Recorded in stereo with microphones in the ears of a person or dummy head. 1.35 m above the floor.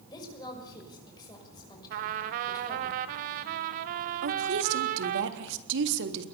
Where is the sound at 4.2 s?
75° right (ahead or behind), 3 m.